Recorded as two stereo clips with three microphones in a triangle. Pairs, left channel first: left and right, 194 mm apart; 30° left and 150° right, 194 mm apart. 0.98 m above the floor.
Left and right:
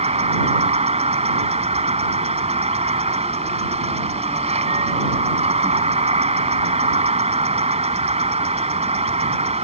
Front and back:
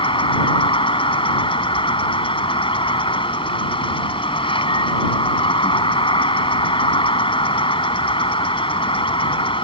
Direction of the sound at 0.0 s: 35° right.